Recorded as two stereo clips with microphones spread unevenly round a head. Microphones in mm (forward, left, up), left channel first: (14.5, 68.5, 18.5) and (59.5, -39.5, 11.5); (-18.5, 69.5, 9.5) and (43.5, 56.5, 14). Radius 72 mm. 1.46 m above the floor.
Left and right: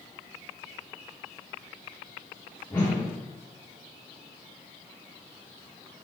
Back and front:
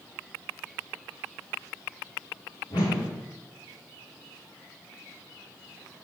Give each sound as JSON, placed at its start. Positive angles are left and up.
{"t": 2.7, "sound": "a whoosh", "azimuth_deg": -170, "distance_m": 1.6}